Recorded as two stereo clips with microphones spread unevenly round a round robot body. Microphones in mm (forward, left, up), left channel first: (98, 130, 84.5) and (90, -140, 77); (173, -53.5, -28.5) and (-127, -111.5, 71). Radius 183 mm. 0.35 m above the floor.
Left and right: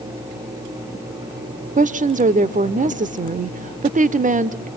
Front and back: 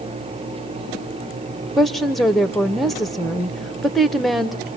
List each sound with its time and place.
1.8 s a woman speaking: 55° right, 0.9 m